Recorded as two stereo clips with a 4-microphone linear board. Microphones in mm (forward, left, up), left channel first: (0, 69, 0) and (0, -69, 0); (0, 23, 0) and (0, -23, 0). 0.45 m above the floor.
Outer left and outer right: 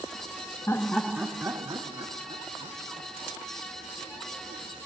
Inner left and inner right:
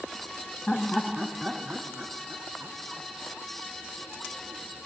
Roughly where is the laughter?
Centre.